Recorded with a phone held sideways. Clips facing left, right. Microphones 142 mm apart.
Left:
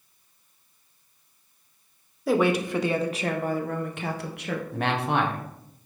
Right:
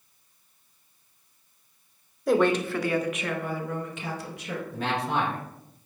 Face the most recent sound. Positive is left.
turn(degrees=65)  # may be behind; listen again after turning